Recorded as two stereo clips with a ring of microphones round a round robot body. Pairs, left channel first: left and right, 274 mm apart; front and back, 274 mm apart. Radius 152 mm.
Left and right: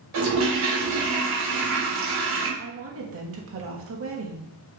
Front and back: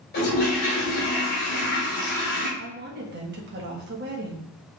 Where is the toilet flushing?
60° right, 2.5 m.